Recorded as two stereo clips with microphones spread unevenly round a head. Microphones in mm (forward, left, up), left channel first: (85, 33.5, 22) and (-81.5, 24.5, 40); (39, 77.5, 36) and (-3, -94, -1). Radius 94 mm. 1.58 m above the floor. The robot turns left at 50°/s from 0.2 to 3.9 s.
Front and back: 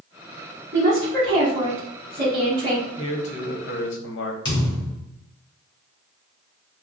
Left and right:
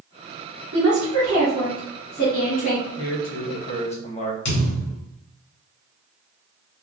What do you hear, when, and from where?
0.7 s a woman speaking: 130° right, 2.5 m; by 2.9 s 125° left, 2.5 m
3.0 s a man speaking: 70° left, 1.2 m; by 4.3 s 20° left, 1.2 m
4.5 s a thud: 70° left, 2.5 m